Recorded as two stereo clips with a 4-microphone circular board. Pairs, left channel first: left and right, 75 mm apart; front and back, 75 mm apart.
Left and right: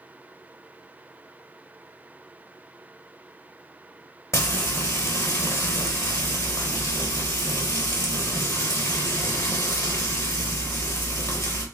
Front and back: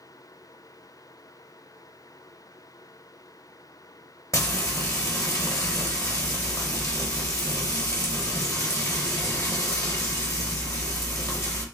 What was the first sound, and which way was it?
Frying, 40° left.